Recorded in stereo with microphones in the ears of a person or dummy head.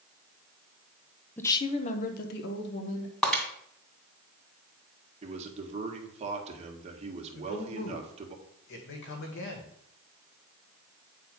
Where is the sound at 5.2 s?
35° right (ahead or behind), 1.8 m.